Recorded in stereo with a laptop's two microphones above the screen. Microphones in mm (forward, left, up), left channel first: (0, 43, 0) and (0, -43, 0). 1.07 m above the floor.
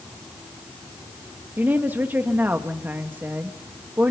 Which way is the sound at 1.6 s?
20° right (ahead or behind).